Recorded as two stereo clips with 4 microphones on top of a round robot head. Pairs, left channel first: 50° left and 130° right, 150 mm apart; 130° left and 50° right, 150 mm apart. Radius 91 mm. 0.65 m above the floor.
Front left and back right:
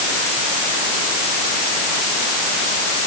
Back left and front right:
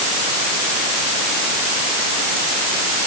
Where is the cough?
No cough in this recording.